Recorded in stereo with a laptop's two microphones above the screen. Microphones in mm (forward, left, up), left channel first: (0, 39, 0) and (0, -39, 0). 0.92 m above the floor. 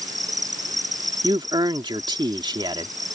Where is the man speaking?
75° right (ahead or behind).